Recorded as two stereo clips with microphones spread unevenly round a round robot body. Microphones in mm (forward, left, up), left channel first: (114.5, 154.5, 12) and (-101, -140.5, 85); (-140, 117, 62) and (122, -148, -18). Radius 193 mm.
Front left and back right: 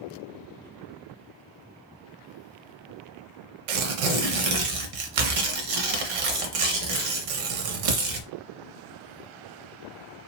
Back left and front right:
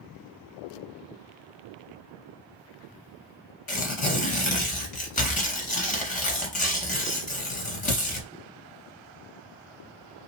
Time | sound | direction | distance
3.7 | tearing paper | 150° right | 0.6 m